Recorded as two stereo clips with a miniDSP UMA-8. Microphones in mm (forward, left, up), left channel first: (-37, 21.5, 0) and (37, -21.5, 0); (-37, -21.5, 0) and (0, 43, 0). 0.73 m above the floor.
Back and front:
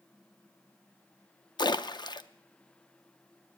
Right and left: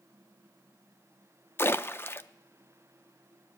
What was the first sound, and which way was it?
A splash, straight behind.